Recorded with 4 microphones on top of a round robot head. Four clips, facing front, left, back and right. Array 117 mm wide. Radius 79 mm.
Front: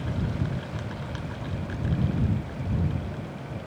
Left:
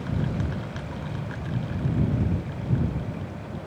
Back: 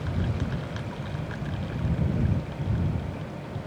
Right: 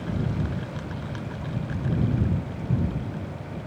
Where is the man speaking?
No man speaking in this recording.